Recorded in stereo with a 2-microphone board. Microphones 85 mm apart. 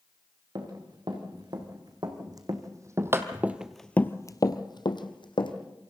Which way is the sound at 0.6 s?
55° right (ahead or behind).